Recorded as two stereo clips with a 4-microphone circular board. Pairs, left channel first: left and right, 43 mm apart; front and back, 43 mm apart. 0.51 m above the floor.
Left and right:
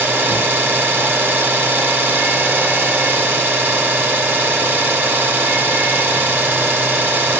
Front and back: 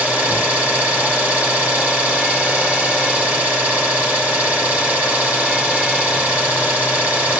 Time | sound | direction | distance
0.0 | an engine running | 115° right | 1.8 m